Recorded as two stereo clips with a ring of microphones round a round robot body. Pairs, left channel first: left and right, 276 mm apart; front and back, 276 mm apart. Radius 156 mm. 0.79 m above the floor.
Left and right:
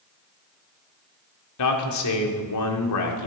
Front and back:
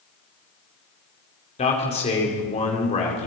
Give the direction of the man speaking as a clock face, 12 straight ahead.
10 o'clock.